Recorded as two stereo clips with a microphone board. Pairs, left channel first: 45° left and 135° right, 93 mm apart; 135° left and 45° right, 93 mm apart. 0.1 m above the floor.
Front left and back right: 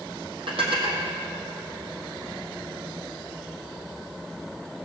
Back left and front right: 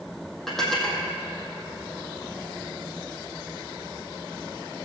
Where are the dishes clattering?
135° right, 3 m.